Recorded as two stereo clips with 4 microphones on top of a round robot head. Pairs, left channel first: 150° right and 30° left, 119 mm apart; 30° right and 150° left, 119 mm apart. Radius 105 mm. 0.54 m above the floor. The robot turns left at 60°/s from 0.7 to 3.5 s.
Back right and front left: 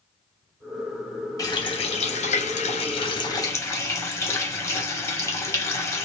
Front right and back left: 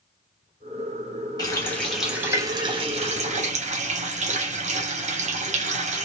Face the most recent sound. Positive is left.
turn(degrees=145)